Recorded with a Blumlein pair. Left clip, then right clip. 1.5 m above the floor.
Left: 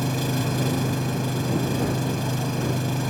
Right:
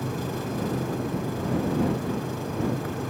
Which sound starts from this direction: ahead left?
An engine running, at 0.0 s.